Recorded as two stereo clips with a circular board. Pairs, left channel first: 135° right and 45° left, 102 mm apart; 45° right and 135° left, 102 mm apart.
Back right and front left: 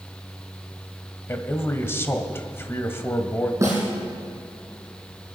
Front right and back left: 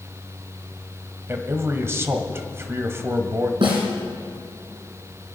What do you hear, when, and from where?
1.3 s a man speaking: straight behind, 1.5 m
3.6 s a snare drum: 105° left, 5.5 m